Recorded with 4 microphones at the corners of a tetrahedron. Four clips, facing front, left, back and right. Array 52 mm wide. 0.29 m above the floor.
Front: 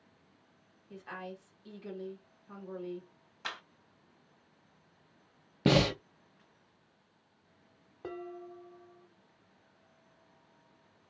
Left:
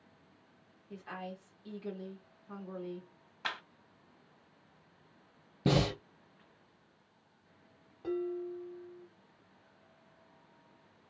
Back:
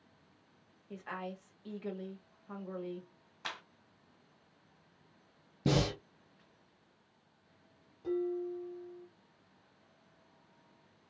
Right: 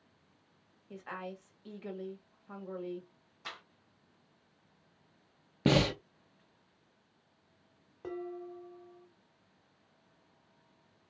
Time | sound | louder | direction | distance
0.9 | a woman speaking | right 1 dB, back 1 dB | 140° right | 1.6 m
3.4 | a clap | left 7 dB, front 2 dB | 90° left | 1.3 m
5.7 | breathing | right 2 dB, front 5 dB | 35° right | 0.8 m
8.0 | dishes clattering | left 5 dB, back 8 dB | 20° right | 1.5 m